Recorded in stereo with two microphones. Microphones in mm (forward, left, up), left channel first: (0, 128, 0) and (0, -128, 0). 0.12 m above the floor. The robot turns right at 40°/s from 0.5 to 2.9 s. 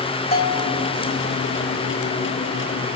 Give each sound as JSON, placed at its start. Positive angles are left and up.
{"t": 0.3, "sound": "a bell", "side_deg": 35, "distance_m": 4.0}